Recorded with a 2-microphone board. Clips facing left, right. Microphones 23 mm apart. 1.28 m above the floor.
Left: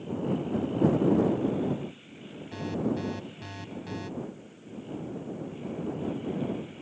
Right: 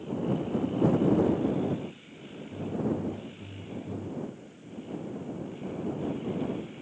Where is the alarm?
65° left (ahead or behind).